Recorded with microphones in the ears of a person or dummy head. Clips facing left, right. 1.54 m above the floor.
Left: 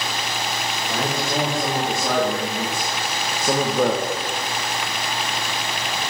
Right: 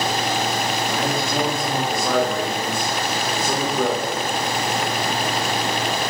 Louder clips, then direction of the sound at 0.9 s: Right 1 dB; 35° left (ahead or behind).